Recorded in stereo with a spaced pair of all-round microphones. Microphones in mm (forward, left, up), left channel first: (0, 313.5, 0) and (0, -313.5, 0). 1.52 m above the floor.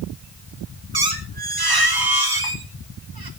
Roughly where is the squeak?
Right.